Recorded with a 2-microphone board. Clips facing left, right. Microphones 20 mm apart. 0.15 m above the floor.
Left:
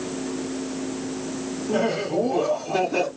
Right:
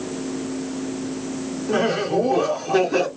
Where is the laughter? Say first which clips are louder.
Right 3 dB; 40° right (ahead or behind), 1.5 m.